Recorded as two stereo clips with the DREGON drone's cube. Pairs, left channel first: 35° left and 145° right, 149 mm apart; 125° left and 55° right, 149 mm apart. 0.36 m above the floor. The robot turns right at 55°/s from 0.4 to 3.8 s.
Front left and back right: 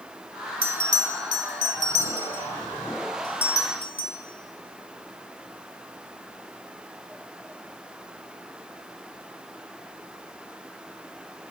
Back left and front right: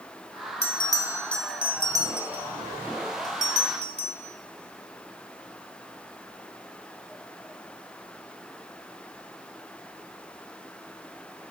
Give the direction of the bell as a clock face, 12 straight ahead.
6 o'clock.